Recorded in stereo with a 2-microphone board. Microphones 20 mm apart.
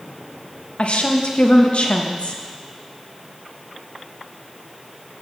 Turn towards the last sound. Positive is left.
turn(degrees=75)  # may be behind; listen again after turning